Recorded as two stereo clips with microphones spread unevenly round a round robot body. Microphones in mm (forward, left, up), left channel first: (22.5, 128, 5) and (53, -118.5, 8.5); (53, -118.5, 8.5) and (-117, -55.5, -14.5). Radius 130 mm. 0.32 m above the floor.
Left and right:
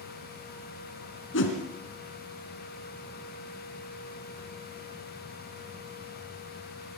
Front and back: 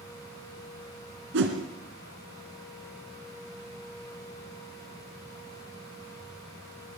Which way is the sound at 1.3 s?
140° left.